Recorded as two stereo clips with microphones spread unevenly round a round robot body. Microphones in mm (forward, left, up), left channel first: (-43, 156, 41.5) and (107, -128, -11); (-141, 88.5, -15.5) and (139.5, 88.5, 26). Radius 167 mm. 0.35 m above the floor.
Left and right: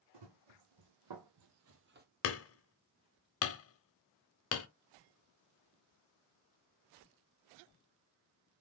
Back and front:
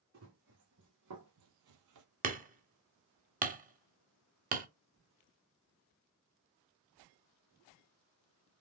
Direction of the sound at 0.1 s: 55° right.